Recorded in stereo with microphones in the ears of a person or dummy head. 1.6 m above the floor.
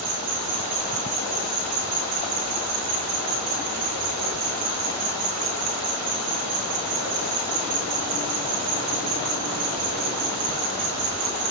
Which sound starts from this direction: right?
An insect, at 0.0 s.